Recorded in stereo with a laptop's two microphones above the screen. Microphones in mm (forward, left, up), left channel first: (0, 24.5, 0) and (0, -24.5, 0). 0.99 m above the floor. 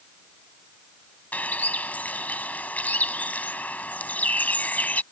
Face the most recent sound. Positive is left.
turn(degrees=30)  # may be behind; listen again after turning